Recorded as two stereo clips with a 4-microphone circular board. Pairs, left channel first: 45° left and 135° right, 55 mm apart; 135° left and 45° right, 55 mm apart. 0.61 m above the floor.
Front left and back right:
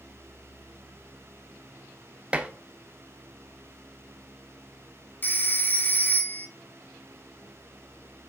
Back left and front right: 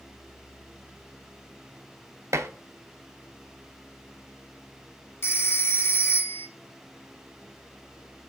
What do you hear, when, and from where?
2.3 s dishes clattering: 65° right, 0.7 m
5.2 s a phone ringing: 95° left, 0.8 m